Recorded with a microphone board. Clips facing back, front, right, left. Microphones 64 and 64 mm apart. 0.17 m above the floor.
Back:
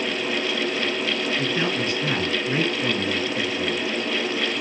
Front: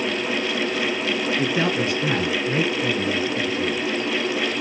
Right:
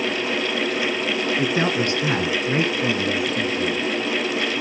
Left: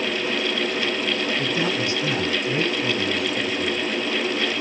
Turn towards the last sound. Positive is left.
turn(degrees=-120)